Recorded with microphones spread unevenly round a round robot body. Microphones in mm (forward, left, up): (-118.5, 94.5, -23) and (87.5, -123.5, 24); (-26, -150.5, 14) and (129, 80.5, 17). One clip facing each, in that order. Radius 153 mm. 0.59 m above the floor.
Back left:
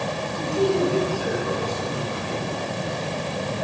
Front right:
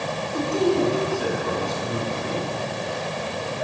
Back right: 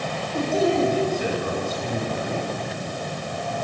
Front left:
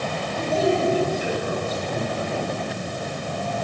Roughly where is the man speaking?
Right.